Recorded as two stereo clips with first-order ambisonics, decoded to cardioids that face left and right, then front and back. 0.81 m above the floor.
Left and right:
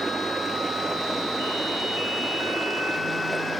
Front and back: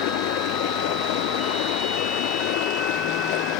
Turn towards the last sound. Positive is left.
turn(degrees=-5)